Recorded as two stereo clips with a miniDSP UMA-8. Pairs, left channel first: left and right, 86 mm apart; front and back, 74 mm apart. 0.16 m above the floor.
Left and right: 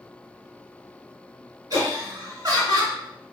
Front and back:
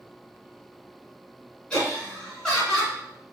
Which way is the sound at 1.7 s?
75° right.